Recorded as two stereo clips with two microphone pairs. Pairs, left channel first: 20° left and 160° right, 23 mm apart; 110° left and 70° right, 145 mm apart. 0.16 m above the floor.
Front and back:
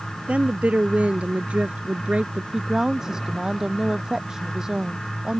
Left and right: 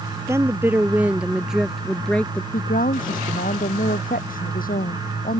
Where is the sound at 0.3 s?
140° right; by 2.4 s 175° right.